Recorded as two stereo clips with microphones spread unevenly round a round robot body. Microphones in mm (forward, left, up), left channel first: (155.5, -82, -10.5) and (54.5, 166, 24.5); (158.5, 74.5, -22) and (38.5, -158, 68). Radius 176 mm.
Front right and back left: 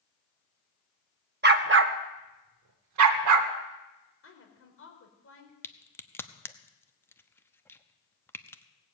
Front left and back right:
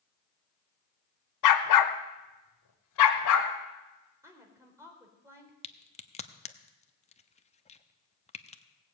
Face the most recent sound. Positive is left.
turn(degrees=10)